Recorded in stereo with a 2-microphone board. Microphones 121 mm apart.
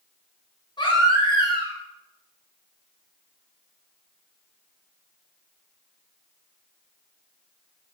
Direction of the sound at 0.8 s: 40° left (ahead or behind).